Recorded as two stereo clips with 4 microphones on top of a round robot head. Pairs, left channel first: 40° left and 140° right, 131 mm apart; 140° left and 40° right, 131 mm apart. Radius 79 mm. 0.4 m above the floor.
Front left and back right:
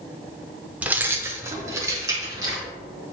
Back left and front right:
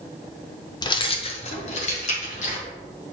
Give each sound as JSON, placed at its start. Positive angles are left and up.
{"t": 0.8, "sound": "keys jangling", "azimuth_deg": 150, "distance_m": 0.6}